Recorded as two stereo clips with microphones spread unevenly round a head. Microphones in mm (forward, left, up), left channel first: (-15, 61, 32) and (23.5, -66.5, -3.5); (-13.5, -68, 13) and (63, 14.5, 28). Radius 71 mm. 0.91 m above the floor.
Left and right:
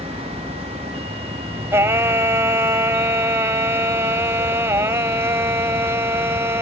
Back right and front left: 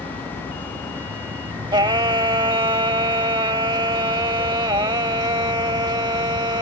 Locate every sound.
0.0 s a vehicle: 10° left
1.7 s singing: 10° left